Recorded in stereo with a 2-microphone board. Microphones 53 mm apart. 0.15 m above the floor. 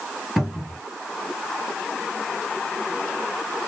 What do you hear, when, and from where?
0.4 s a cupboard door: centre (ahead or behind), 3 m